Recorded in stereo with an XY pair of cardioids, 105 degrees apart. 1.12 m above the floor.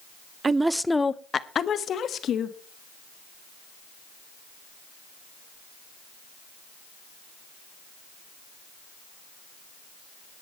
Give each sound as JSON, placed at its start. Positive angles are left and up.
{"t": 0.4, "sound": "a woman speaking", "azimuth_deg": -35, "distance_m": 0.6}